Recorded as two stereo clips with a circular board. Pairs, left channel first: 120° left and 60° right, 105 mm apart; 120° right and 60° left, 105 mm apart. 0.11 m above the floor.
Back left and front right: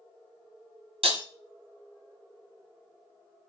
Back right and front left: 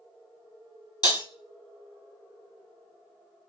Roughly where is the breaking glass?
Right.